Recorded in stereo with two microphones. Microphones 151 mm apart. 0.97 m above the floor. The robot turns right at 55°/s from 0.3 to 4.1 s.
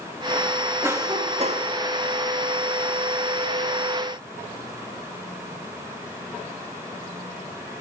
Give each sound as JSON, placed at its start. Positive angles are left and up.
{"t": 0.8, "sound": "a cough", "azimuth_deg": -165, "distance_m": 1.4}